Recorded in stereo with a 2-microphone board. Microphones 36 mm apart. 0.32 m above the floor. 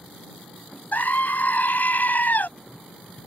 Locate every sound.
0.9 s a scream: 55° left (ahead or behind)